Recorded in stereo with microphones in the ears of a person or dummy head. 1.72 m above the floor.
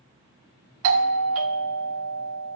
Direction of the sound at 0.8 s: 70° right (ahead or behind).